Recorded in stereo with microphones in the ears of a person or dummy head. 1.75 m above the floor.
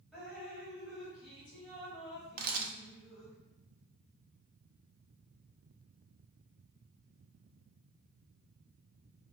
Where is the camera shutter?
55° right (ahead or behind), 0.5 m.